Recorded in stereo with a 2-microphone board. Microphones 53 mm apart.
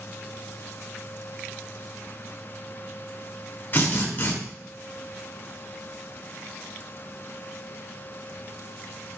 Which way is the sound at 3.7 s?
40° left (ahead or behind).